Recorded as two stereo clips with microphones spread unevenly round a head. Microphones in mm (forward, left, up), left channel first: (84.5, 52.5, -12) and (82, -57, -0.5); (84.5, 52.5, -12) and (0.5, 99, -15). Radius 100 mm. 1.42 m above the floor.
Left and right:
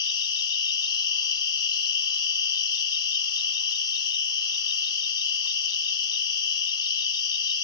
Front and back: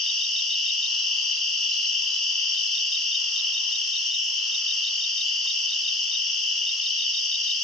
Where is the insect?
55° left, 1.0 m.